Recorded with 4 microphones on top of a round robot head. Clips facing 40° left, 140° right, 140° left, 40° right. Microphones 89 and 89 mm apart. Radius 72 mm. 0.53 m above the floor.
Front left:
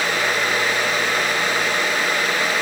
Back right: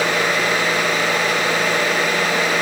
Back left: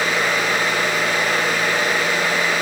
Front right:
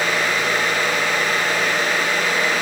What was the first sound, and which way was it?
Only background noise.